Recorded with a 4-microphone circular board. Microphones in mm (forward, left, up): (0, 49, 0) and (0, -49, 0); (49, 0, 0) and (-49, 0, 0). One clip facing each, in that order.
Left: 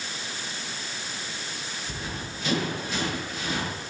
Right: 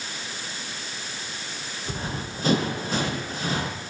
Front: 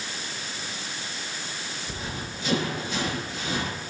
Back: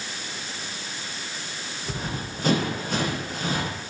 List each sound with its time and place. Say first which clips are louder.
1.9 s running footsteps: right 6 dB, back 5 dB; 140° right, 9 m